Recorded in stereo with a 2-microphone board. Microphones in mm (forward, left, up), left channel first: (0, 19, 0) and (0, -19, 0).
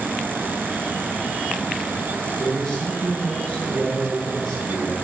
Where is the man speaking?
20° left (ahead or behind), 3.5 m.